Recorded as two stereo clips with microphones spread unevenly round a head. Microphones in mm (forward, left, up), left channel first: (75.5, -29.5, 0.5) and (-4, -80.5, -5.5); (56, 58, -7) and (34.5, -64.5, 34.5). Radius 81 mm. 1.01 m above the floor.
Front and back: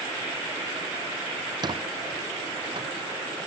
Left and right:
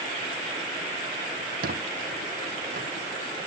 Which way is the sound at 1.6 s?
105° right.